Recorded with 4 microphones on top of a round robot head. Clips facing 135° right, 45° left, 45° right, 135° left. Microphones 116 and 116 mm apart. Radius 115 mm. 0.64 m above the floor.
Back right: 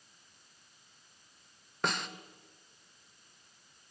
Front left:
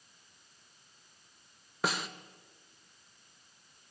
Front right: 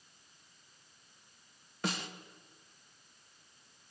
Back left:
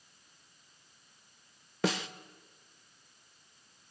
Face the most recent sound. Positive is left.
turn(degrees=130)